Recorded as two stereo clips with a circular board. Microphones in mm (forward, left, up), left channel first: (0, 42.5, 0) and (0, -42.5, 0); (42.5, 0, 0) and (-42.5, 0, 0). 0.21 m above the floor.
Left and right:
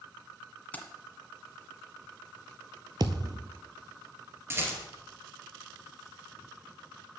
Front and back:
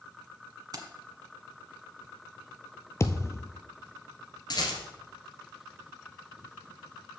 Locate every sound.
0.7 s keys jangling: 155° left, 1.3 m
3.0 s a thud: 55° right, 0.8 m
4.5 s a rattle: 30° right, 2.5 m